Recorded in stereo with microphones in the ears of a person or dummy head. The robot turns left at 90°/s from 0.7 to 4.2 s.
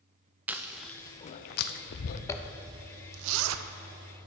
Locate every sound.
0.5 s chewing: 5° right (ahead or behind), 0.5 m; by 2.2 s 45° left (ahead or behind), 0.5 m
2.3 s a zipper: 20° left (ahead or behind), 0.5 m; by 4.3 s 25° right (ahead or behind), 0.5 m